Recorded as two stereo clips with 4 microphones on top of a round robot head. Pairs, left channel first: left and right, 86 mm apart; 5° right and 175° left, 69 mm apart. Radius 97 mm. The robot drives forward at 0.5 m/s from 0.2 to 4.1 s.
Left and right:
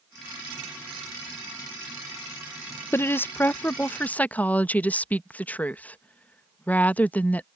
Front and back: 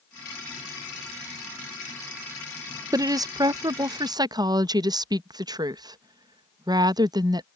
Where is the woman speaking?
150° left; by 7.5 s 165° left.